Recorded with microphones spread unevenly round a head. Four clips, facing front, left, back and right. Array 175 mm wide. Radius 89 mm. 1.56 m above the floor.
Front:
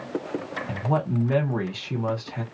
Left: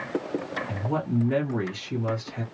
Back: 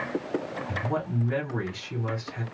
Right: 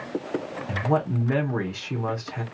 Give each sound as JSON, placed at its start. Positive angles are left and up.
{"t": 0.7, "sound": "a man speaking", "azimuth_deg": -35, "distance_m": 1.5}